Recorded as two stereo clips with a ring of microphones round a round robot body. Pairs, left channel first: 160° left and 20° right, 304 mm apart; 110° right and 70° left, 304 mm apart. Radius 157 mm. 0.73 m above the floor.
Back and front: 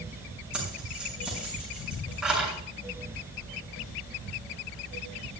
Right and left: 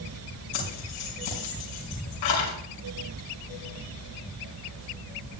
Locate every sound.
0.5 s keys jangling: 110° right, 6 m